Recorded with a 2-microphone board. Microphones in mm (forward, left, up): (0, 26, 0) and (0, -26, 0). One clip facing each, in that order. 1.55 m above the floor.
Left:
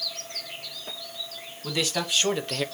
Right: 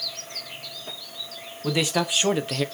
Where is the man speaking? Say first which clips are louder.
Right 4 dB; 25° right (ahead or behind), 1.4 m; by 2.6 s centre (ahead or behind), 0.5 m.